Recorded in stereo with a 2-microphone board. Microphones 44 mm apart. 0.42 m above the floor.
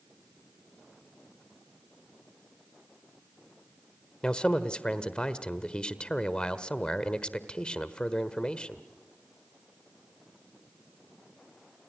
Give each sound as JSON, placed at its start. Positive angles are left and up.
{"t": 4.2, "sound": "a man speaking", "side_deg": 20, "distance_m": 1.4}